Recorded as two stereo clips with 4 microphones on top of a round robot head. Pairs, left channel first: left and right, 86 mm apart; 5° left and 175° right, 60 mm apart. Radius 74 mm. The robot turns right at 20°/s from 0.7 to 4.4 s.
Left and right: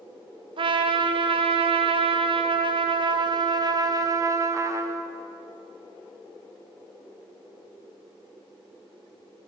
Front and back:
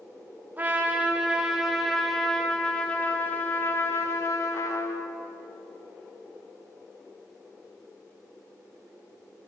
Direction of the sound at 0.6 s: 110° right.